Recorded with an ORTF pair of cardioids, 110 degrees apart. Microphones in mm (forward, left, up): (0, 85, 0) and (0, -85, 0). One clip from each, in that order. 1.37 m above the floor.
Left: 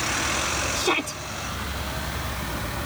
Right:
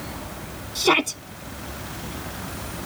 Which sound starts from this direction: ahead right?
A shout, at 0.8 s.